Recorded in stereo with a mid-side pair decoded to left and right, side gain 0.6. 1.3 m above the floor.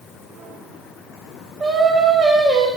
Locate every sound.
1.6 s singing: 30° right, 7 m